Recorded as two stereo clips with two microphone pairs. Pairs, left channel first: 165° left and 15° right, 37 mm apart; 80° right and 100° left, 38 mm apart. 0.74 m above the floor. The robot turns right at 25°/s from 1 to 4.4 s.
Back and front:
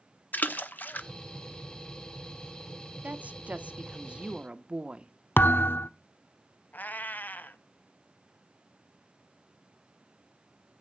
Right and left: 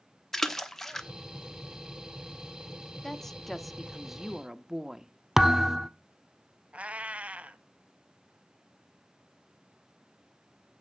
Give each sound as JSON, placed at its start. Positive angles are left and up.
{"t": 0.3, "sound": "a splash", "azimuth_deg": -160, "distance_m": 0.9}
{"t": 3.0, "sound": "a woman speaking", "azimuth_deg": -5, "distance_m": 0.9}
{"t": 5.4, "sound": "a thud", "azimuth_deg": 180, "distance_m": 0.6}
{"t": 6.7, "sound": "a cat meowing", "azimuth_deg": 145, "distance_m": 0.8}